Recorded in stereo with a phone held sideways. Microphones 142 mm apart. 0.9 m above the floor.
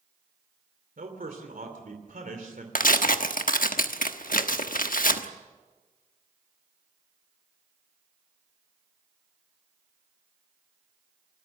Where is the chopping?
No chopping in this recording.